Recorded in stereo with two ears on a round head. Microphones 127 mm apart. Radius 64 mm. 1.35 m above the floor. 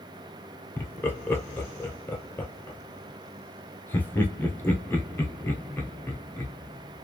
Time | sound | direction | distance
0.8 | laughter | 15° left (ahead or behind) | 0.6 m